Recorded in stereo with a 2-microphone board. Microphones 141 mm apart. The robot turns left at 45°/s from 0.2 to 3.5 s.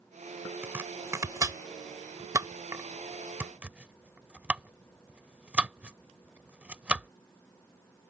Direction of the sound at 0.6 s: 15° right (ahead or behind).